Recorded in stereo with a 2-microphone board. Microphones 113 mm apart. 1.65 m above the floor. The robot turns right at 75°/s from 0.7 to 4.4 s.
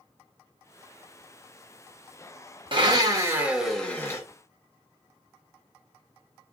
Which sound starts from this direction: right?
A blender, at 2.7 s.